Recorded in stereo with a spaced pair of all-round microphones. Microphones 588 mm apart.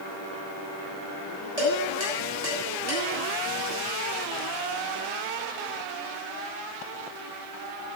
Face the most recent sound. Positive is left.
turn(degrees=-90)